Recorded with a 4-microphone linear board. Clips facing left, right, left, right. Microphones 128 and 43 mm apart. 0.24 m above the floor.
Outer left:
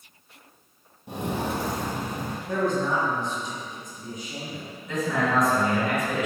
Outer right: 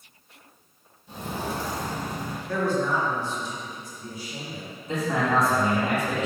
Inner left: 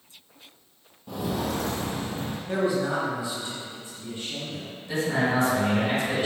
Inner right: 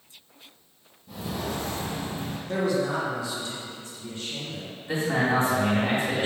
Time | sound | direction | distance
1.1 | footsteps | 75° left (ahead or behind) | 0.5 m
2.5 | a man speaking | 20° left (ahead or behind) | 1.0 m
4.9 | a man speaking | 35° right (ahead or behind) | 2.0 m